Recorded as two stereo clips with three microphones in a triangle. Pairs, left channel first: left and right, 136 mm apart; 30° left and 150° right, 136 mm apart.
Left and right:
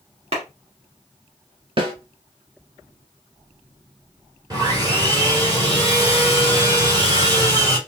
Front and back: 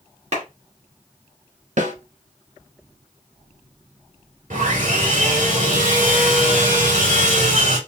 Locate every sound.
0.3 s a clap: 125° right, 2.5 m
1.8 s a snare drum: 135° right, 1.2 m
4.5 s sawing: 150° right, 2.5 m